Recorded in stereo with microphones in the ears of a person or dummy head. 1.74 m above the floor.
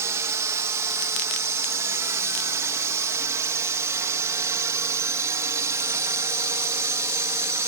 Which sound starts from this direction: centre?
A drone, at 0.0 s.